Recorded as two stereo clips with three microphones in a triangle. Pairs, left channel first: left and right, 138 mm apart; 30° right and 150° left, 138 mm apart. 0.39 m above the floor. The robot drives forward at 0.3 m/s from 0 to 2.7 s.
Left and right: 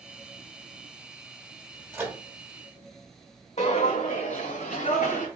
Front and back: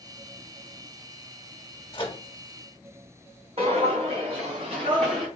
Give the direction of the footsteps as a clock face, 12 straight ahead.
8 o'clock.